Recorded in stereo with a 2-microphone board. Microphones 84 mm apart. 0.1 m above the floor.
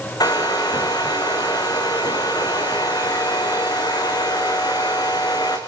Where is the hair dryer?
55° left (ahead or behind), 4.5 m.